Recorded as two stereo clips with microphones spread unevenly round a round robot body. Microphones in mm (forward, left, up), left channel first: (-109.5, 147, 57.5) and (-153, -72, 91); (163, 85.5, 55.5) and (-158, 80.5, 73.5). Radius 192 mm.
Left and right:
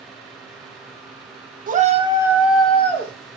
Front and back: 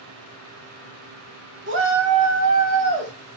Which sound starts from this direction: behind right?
A shout, at 1.7 s.